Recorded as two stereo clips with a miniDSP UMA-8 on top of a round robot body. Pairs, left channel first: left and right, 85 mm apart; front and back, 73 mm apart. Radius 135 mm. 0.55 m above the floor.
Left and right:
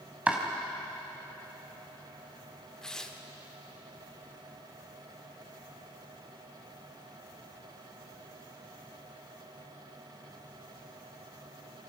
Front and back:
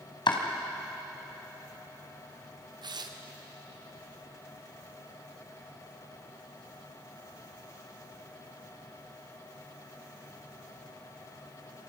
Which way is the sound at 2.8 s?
170° left.